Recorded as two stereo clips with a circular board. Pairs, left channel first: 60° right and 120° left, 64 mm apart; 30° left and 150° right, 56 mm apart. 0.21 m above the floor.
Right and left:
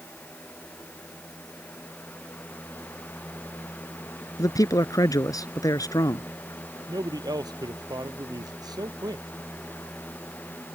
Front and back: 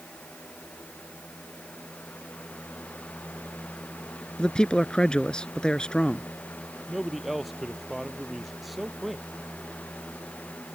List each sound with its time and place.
4.4 s a man speaking: 45° right
6.9 s a man speaking: 120° left